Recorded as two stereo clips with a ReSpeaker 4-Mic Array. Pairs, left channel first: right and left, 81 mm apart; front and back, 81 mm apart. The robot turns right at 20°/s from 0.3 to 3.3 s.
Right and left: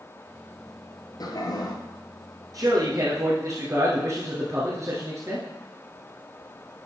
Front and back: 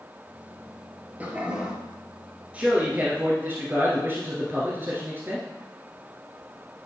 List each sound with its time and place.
1.2 s a toilet flushing: 110° right, 1.3 m; by 1.8 s 100° right, 1.3 m
2.5 s a man speaking: 110° left, 1.7 m; by 5.5 s 125° left, 1.7 m